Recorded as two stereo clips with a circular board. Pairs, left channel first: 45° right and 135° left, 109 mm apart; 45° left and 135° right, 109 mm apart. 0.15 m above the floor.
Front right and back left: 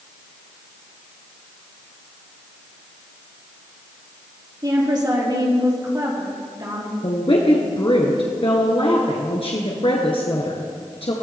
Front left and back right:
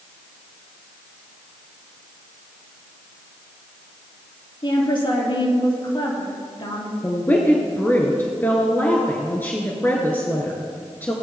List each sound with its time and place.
4.6 s a woman speaking: 85° left, 4 m
7.0 s a woman speaking: 25° right, 1.8 m